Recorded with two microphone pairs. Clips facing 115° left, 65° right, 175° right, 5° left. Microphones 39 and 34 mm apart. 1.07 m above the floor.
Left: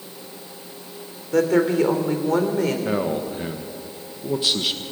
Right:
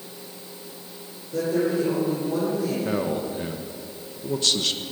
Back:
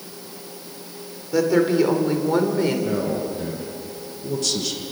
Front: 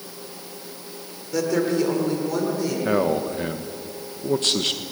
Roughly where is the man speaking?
Ahead left.